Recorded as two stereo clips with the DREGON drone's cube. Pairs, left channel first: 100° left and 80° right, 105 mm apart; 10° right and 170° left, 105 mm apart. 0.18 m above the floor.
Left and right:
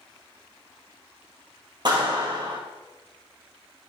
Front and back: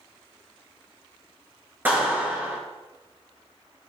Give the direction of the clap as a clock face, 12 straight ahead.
4 o'clock.